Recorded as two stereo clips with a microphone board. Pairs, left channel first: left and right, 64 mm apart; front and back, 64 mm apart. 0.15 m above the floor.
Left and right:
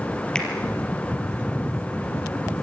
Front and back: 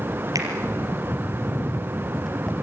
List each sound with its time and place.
0.3 s a finger snap: 170° left, 4 m